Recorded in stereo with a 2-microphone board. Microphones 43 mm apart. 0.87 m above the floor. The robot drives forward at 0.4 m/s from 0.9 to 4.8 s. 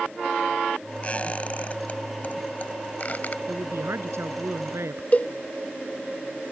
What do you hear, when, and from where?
1.0 s a squeak: 35° left (ahead or behind); by 3.4 s 40° left (ahead or behind)
3.5 s a woman speaking: 80° right; by 5.0 s 85° right
5.1 s a cowbell: 35° left (ahead or behind)